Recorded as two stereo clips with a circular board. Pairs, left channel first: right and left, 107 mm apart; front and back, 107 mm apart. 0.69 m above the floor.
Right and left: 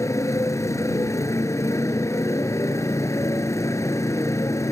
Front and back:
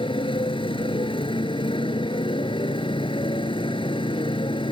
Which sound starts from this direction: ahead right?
A motorcycle, at 0.0 s.